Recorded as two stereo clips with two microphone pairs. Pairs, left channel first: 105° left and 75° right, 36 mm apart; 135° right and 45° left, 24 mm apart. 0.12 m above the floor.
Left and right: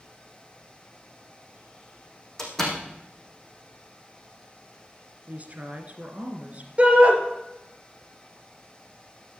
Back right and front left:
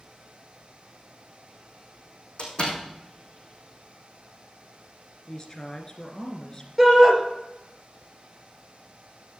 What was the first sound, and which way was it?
A door slam, 175° right.